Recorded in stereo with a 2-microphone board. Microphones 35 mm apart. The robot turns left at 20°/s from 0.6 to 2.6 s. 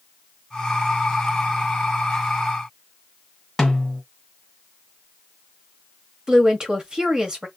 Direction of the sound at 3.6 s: 5° left (ahead or behind).